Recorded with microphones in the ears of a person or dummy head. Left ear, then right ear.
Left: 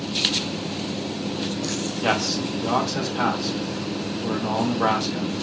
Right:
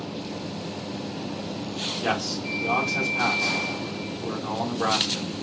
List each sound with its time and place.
2.0 s a man speaking: 5° left (ahead or behind), 0.9 m